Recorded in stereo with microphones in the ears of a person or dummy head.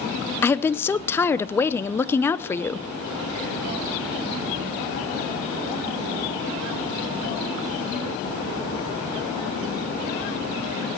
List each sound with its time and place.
0.4 s a woman speaking: 15° left (ahead or behind), 0.5 m